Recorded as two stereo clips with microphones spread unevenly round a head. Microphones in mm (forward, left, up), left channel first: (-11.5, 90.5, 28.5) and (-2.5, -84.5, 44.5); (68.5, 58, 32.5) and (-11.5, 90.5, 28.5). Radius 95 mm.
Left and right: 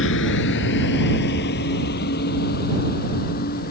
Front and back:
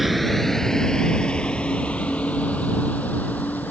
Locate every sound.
0.0 s a vehicle: 70° left; by 3.7 s 50° left